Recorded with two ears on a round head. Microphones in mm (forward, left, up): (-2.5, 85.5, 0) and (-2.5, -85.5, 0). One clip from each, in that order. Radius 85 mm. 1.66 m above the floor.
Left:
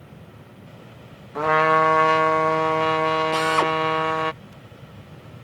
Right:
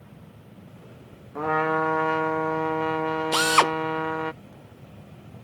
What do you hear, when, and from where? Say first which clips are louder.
1.4 s a trumpet: left 6 dB; 70° left (ahead or behind)
3.3 s a drill: even; 45° right (ahead or behind)